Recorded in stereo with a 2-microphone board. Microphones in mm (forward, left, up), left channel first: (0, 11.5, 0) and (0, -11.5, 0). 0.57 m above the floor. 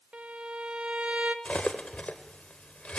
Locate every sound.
0.1 s a violin: 55° right (ahead or behind), 0.8 m
1.4 s cutlery clinking: 75° left (ahead or behind), 1.1 m